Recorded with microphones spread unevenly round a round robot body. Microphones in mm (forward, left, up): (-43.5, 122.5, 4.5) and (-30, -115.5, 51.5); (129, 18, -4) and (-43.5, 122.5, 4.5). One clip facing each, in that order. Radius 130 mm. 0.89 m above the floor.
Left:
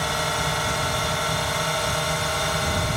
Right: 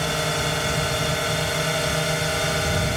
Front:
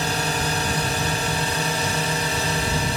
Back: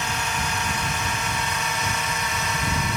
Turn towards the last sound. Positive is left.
turn(degrees=-25)